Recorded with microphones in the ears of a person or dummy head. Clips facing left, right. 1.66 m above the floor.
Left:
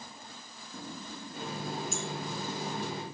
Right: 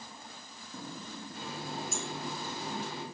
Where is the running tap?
20° left (ahead or behind), 2 m.